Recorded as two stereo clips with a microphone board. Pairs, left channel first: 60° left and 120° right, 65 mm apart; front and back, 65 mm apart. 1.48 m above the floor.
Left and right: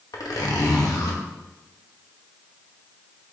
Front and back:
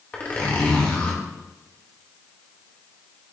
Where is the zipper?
65° left, 1.5 m.